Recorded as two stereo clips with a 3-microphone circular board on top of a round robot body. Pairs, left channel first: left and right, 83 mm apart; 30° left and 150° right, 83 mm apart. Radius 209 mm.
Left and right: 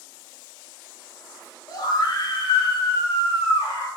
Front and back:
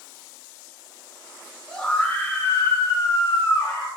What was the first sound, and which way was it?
A scream, 115° left.